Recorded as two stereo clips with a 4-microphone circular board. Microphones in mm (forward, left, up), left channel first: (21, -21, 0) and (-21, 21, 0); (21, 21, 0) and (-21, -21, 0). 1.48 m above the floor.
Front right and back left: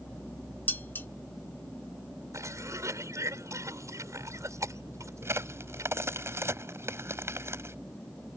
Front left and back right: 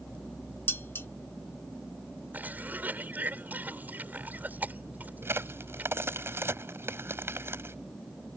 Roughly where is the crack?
Behind.